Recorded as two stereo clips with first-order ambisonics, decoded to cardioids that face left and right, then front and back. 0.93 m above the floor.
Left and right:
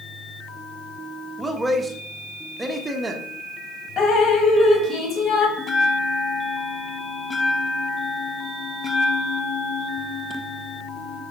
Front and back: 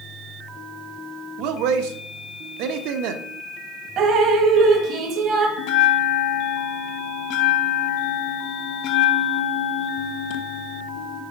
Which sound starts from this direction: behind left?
Dripping, at 4.0 s.